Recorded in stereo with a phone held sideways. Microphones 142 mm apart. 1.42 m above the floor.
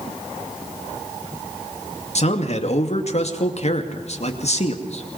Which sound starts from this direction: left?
A man speaking, at 2.1 s.